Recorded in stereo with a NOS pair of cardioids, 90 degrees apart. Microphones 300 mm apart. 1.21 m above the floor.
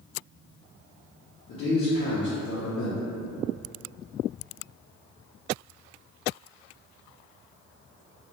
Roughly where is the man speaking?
Ahead left.